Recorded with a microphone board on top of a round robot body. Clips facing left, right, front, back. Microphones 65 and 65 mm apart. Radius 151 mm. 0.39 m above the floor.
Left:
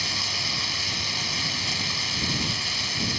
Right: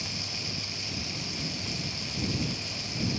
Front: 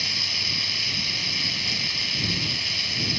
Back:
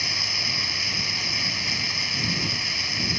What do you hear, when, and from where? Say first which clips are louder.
0.0 s running water: left 7 dB, back 1 dB; 115° left